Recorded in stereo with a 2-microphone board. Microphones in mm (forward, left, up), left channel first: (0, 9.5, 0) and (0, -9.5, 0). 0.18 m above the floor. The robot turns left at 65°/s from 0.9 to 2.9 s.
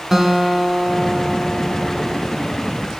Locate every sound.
0.1 s a guitar: 155° right, 1.0 m; by 2.4 s 110° left, 1.0 m